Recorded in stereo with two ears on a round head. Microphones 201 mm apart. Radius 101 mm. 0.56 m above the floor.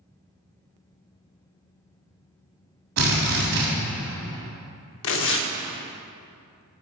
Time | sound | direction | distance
3.0 | a drill | 65° right (ahead or behind) | 1.9 m
5.0 | tearing paper | 60° left (ahead or behind) | 0.7 m